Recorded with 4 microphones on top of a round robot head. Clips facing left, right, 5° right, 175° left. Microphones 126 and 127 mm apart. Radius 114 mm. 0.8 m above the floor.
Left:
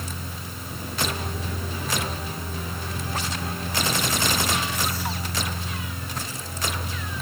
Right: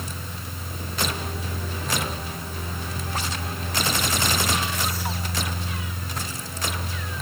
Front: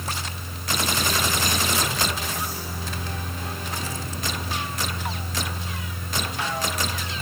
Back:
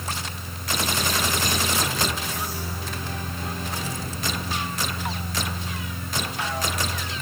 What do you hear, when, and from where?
Only background noise.